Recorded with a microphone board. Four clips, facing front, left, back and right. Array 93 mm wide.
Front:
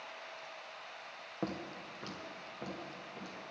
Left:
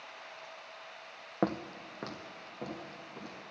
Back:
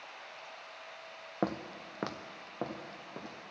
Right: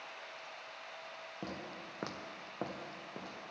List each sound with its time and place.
1.4 s footsteps: 120° left, 0.6 m; by 3.4 s 145° right, 2.5 m